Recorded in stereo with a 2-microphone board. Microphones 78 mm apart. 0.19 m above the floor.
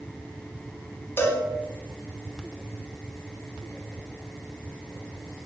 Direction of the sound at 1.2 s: 25° left (ahead or behind).